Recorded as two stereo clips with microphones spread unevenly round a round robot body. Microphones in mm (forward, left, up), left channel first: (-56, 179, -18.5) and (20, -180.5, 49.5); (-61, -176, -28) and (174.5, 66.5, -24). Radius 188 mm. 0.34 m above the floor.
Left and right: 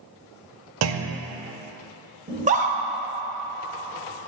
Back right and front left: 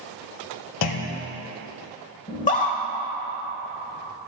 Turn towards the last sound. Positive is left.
turn(degrees=-145)